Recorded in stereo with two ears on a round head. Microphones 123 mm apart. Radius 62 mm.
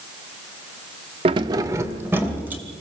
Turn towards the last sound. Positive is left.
turn(degrees=-15)  # may be behind; listen again after turning